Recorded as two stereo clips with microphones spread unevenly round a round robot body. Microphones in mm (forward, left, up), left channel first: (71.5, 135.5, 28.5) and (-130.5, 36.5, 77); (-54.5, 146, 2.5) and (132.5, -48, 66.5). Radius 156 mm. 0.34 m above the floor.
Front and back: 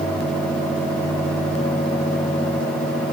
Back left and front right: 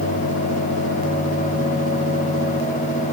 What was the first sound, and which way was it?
Only background noise.